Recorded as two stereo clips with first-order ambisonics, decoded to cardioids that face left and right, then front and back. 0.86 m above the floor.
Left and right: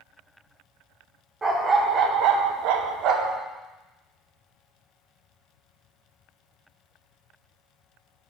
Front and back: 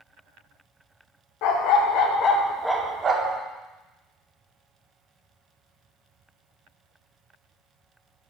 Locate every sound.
1.4 s a dog barking: 15° right, 0.9 m; by 3.4 s 130° right, 0.9 m